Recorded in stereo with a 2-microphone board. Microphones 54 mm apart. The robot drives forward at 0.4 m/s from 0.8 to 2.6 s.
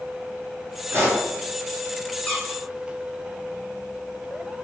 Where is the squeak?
20° left (ahead or behind), 0.9 m; by 2.6 s 15° left (ahead or behind), 1.0 m.